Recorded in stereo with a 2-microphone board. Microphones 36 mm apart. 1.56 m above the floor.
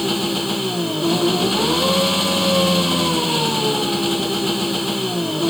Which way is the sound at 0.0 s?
5° left (ahead or behind).